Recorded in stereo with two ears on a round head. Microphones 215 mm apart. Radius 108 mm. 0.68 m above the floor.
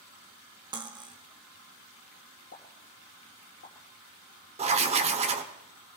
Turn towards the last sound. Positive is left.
turn(degrees=-25)  # may be behind; listen again after turning